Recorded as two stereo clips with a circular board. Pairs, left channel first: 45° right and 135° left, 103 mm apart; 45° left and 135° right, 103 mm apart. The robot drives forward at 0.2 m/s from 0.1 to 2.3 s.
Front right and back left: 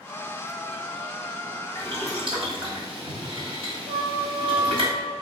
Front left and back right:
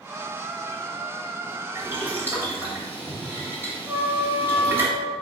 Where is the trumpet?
140° left, 3 m.